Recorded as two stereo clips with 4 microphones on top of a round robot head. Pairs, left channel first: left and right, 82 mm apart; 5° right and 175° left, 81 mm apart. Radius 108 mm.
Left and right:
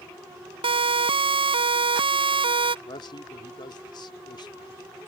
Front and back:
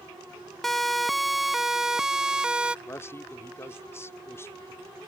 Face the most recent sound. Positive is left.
turn(degrees=55)